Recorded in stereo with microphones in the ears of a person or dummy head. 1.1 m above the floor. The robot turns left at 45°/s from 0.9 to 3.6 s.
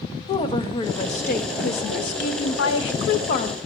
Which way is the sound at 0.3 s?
155° left.